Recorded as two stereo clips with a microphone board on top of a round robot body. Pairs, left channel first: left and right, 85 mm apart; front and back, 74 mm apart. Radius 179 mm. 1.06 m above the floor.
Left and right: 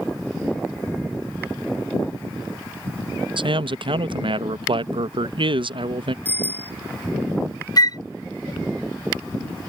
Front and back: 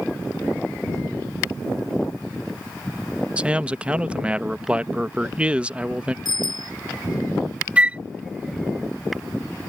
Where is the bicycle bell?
20° left.